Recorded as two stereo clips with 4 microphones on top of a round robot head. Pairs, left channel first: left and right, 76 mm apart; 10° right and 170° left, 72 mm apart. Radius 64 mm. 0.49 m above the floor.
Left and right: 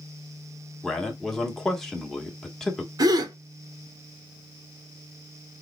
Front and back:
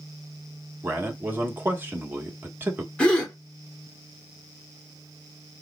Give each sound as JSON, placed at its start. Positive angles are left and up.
{"t": 0.8, "sound": "a man speaking", "azimuth_deg": 170, "distance_m": 1.2}
{"t": 3.0, "sound": "a gasp", "azimuth_deg": -85, "distance_m": 1.0}